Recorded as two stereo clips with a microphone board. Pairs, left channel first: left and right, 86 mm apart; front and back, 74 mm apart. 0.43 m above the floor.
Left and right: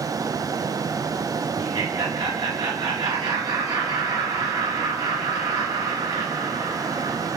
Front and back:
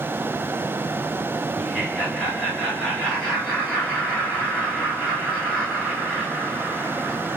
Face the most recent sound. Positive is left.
turn(degrees=-80)